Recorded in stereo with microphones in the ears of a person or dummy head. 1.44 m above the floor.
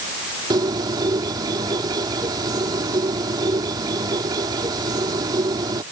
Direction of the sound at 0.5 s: 25° right (ahead or behind).